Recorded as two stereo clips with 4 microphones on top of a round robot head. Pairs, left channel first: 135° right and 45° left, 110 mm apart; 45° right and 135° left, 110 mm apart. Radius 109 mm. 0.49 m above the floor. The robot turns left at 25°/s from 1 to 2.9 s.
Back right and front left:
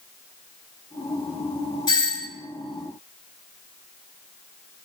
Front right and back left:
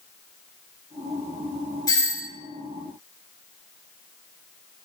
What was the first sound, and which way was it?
A doorbell, 95° right.